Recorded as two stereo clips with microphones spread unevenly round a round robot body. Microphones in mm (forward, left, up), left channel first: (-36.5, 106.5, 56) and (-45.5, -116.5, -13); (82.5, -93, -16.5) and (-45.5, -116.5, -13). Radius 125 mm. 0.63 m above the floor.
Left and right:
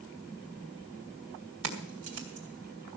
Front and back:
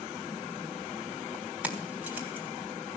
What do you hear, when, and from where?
1.6 s keys jangling: 90° right, 3.5 m; by 3.0 s 95° right, 2.5 m